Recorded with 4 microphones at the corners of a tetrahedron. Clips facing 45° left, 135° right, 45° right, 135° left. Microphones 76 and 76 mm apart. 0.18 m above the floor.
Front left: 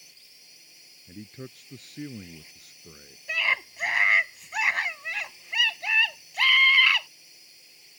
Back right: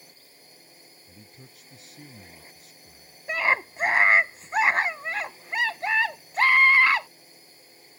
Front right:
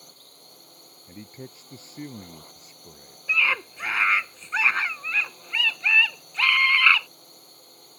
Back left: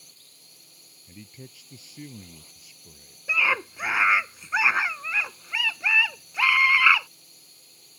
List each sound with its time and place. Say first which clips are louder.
0.0 s a drone: back right 6 dB, front right 7 dB; 85° right
1.1 s a man speaking: front left 11 dB, front right 4 dB; 10° left
3.3 s a scream: back right 4 dB, even; 160° right